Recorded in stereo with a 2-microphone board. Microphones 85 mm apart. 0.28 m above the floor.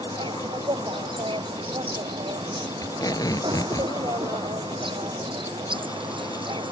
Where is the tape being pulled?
50° left (ahead or behind).